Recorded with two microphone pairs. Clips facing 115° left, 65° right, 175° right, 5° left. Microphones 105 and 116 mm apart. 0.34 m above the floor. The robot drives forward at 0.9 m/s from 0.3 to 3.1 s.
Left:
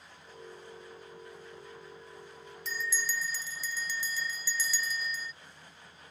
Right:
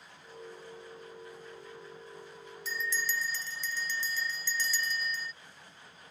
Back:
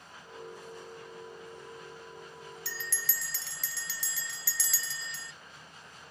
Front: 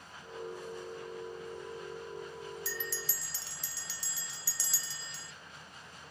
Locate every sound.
2.6 s a bell: 155° right; by 5.3 s 165° right